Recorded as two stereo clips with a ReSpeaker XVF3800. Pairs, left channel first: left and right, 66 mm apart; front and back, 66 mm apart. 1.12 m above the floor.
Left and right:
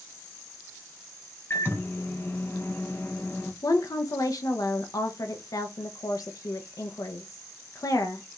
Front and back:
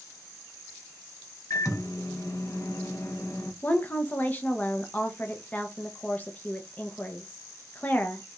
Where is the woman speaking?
60° left, 0.6 m.